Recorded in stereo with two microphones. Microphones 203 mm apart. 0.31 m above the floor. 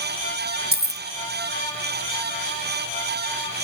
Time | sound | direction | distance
0.7 | keys jangling | 50° right (ahead or behind) | ?